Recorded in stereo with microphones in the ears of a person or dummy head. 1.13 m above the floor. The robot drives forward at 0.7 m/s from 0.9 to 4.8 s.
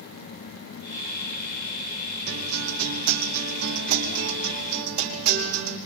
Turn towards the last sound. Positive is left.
turn(degrees=-60)  # may be behind; listen again after turning